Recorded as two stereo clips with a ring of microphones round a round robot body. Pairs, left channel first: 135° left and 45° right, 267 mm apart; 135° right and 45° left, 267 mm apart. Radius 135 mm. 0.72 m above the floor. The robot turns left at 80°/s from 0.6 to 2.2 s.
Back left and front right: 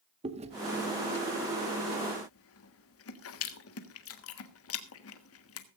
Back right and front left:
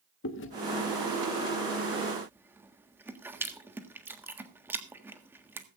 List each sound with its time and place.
0.2 s chewing: 105° right, 1.5 m; by 5.7 s 125° left, 1.5 m